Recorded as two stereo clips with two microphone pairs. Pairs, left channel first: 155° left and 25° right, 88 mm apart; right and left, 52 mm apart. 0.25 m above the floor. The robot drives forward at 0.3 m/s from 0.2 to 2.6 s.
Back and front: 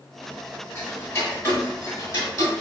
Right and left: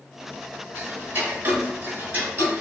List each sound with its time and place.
0.8 s ticking: 105° left, 1.4 m; by 2.6 s 130° left, 1.6 m